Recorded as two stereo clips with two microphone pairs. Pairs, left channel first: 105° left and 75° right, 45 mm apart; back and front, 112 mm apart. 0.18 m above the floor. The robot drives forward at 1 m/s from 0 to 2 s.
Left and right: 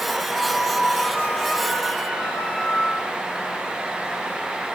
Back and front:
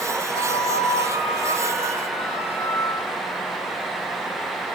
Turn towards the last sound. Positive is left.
turn(degrees=-175)